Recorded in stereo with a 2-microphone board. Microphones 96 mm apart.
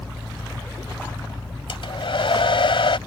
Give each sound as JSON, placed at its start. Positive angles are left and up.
{"t": 1.7, "sound": "a hair dryer", "side_deg": 65}